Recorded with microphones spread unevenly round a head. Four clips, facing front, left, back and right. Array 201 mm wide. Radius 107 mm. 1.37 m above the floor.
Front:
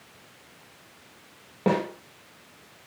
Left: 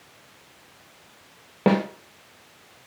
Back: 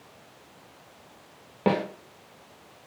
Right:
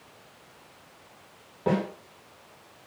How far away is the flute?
No flute in this recording.